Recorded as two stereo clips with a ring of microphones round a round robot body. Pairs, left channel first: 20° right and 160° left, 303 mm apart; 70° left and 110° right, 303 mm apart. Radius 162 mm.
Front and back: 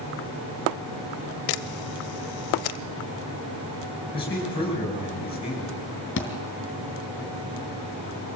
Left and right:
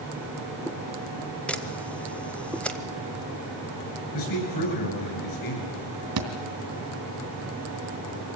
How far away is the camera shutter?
About 0.7 m.